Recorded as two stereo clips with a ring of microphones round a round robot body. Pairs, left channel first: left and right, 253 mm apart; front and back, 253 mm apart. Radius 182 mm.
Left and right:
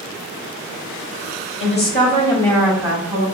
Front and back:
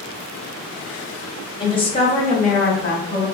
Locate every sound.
1.6 s a woman speaking: 70° left, 1.2 m; by 3.2 s 45° right, 1.0 m